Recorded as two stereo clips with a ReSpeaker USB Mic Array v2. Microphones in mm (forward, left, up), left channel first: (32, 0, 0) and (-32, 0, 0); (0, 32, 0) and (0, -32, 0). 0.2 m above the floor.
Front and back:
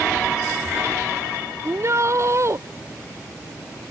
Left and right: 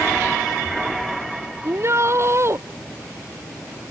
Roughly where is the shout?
Behind right.